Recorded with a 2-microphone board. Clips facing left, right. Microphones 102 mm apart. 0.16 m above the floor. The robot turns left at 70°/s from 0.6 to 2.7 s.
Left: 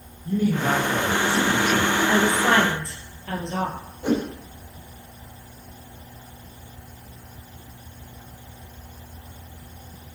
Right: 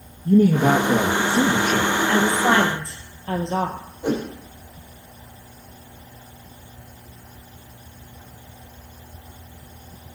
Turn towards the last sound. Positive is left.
turn(degrees=-10)  # may be behind; listen again after turning